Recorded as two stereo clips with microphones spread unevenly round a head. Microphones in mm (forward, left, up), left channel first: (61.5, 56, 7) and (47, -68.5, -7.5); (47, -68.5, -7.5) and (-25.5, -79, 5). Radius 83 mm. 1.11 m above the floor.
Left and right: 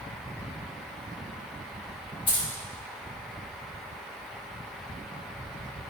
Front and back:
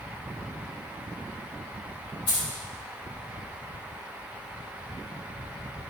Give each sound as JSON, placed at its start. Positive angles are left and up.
{"t": 2.3, "sound": "keys jangling", "azimuth_deg": 35, "distance_m": 4.0}